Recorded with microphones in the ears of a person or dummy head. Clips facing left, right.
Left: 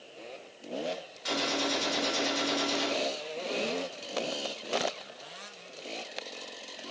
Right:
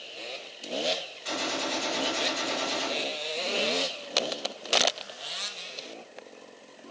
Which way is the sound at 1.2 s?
70° left (ahead or behind).